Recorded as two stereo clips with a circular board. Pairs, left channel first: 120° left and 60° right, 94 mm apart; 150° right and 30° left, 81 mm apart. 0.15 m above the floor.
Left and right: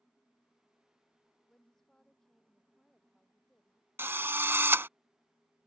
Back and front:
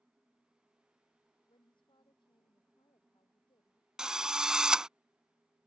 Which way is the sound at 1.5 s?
155° right.